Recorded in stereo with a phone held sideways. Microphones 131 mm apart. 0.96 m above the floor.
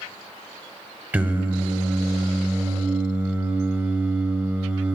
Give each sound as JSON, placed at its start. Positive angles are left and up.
{"t": 1.1, "sound": "singing", "side_deg": -10, "distance_m": 1.0}